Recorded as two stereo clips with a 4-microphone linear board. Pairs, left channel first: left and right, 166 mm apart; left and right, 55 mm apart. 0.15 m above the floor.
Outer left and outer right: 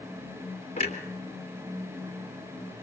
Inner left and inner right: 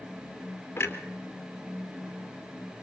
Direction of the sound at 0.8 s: 40° left (ahead or behind).